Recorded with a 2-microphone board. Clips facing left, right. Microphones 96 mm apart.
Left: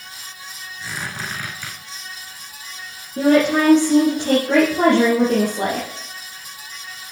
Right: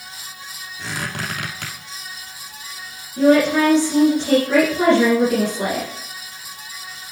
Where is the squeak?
75° right (ahead or behind), 3 m.